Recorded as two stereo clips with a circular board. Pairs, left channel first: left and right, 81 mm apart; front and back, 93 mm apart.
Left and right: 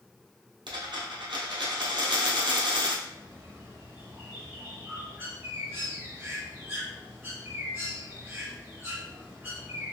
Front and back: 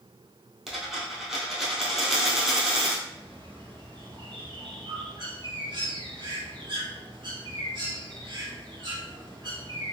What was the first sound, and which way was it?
A dropped coin, 90° right.